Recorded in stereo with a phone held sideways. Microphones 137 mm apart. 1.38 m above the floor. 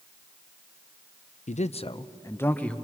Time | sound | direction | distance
1.5 | a man speaking | 70° left (ahead or behind) | 0.5 m